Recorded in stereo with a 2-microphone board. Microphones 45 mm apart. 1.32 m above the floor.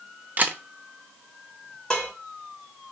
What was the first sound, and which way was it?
A camera shutter, 35° right (ahead or behind).